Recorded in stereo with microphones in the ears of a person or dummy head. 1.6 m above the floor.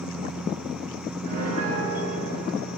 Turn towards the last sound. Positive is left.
turn(degrees=-50)  # may be behind; listen again after turning